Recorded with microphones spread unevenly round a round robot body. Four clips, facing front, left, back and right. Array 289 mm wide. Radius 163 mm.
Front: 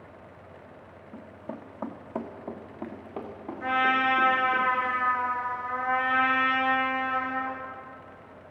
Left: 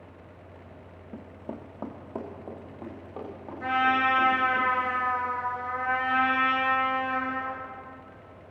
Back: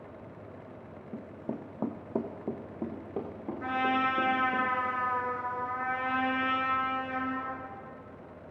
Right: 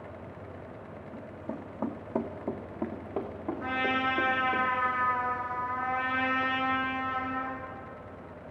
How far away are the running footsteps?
About 0.6 m.